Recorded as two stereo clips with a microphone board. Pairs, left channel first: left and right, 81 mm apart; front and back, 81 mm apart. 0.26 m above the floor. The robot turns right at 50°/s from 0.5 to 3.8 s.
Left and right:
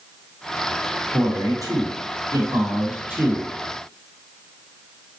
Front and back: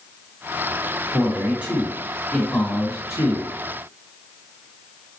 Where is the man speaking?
135° right, 2 m; by 3.5 s 15° right, 2 m.